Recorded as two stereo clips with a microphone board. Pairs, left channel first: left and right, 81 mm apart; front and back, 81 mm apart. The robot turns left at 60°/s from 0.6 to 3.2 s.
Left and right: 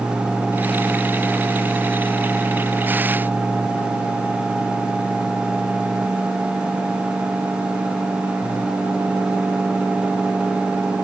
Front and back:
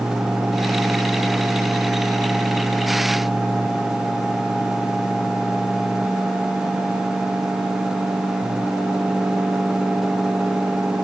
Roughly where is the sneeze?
I don't hear a sneeze.